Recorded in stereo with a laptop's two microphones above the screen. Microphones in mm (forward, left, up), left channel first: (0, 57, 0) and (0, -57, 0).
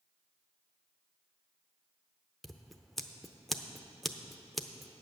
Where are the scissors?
Centre (ahead or behind), 0.6 m.